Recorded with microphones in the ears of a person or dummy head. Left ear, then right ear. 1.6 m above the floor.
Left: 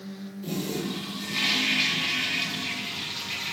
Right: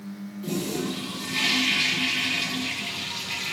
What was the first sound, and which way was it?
A toilet flushing, 5° right (ahead or behind).